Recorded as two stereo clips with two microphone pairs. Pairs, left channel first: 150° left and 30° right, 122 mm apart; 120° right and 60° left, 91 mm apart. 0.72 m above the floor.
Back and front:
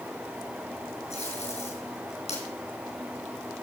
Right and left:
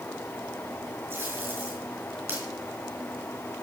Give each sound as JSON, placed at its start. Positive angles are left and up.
{"t": 1.1, "sound": "tape being pulled", "azimuth_deg": 130, "distance_m": 4.0}